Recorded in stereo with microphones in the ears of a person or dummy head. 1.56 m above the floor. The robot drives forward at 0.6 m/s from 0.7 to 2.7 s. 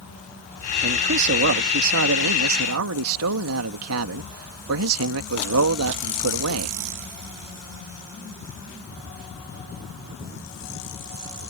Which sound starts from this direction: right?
A man speaking, at 0.8 s.